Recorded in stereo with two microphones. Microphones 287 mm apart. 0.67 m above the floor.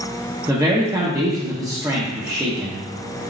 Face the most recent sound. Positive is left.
turn(degrees=-10)  # may be behind; listen again after turning